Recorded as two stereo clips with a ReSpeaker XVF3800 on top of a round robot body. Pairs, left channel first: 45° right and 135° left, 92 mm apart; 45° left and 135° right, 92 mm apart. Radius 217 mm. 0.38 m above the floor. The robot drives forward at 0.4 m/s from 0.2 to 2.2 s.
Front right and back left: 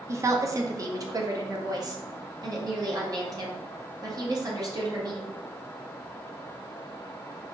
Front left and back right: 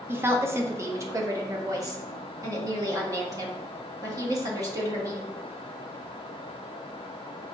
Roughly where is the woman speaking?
Behind.